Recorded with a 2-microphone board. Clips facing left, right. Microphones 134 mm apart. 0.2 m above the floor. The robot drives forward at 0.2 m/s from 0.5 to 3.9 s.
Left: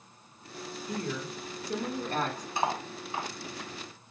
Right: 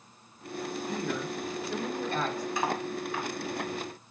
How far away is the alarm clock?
I don't hear an alarm clock.